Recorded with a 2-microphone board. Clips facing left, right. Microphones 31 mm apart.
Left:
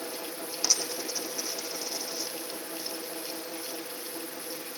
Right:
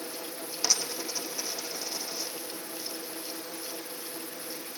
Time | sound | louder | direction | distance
0.6 | a dropped coin | even | 5° right (ahead or behind) | 3 m